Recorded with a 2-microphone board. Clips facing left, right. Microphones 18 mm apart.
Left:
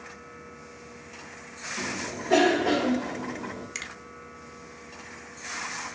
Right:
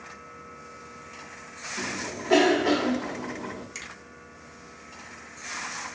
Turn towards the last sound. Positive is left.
turn(degrees=15)  # may be behind; listen again after turning